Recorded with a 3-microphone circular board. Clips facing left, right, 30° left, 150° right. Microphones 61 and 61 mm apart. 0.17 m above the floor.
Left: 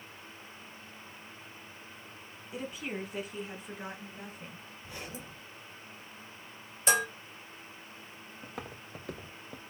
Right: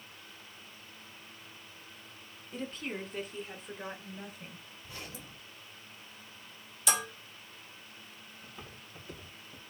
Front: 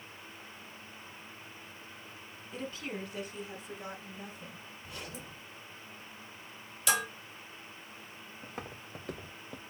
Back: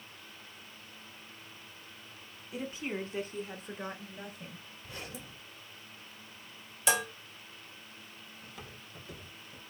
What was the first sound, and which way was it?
A woman speaking, 150° left.